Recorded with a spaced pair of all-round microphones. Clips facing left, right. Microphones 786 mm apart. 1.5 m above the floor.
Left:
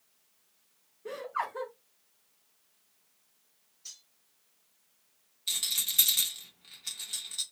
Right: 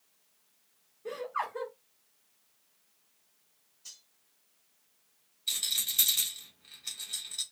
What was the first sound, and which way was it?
Laughter, 20° right (ahead or behind).